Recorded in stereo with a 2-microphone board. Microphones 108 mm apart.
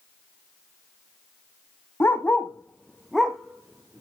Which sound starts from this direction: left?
A dog barking, at 2.0 s.